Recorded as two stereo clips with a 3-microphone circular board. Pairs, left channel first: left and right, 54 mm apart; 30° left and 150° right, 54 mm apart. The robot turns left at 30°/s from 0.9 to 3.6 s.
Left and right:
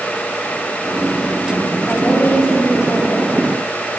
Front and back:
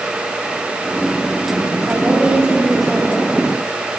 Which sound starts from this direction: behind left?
A woman speaking, at 1.9 s.